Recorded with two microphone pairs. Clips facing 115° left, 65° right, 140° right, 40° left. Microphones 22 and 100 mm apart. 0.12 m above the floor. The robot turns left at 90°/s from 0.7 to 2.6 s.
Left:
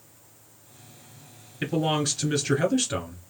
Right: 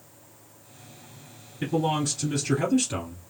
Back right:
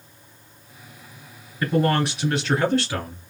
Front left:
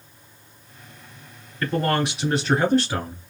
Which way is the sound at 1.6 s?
170° left.